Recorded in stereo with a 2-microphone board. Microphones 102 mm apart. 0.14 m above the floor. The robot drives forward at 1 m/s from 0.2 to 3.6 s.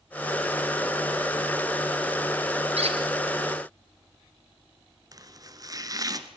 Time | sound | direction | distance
2.8 | a squeak | 75° right (ahead or behind) | 1.8 m
5.1 | chopping | 35° right (ahead or behind) | 1.2 m